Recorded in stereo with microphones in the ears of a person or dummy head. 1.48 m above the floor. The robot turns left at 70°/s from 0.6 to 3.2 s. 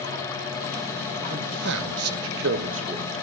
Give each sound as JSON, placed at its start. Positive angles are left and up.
{"t": 1.2, "sound": "a man speaking", "side_deg": -30, "distance_m": 0.9}